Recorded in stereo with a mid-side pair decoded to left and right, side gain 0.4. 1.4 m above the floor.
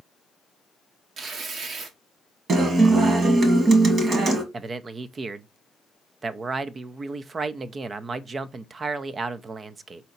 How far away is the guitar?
About 1.4 m.